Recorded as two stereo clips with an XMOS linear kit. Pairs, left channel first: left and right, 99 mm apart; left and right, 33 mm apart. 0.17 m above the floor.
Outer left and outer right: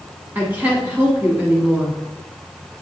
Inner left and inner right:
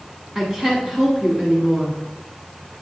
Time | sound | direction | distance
0.3 | a woman speaking | 15° right (ahead or behind) | 1.3 m